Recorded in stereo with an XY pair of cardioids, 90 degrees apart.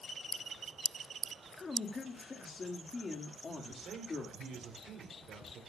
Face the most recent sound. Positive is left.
turn(degrees=-70)